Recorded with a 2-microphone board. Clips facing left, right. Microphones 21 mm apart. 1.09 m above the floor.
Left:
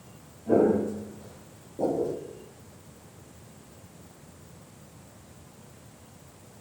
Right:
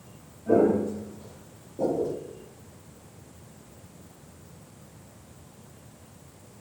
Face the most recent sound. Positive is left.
turn(degrees=-10)  # may be behind; listen again after turning